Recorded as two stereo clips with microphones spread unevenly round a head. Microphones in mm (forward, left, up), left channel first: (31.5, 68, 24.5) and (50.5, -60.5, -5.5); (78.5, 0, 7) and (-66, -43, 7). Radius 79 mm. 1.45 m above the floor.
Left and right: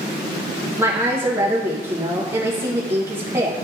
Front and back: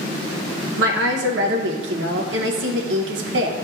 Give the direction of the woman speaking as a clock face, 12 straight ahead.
5 o'clock.